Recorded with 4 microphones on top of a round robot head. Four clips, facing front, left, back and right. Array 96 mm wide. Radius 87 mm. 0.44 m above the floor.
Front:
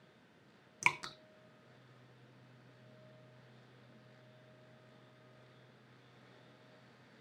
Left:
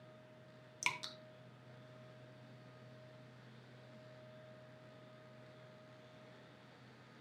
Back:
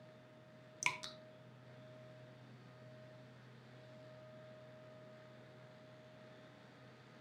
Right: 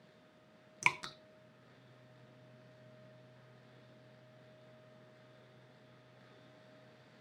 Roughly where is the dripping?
Ahead right.